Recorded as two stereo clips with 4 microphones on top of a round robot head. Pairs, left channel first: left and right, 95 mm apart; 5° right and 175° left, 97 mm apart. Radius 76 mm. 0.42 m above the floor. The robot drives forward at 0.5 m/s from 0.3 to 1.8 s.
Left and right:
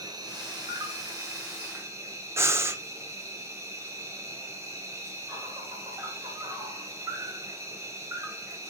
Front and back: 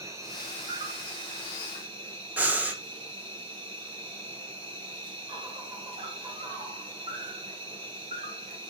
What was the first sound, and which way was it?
An insect, 130° right.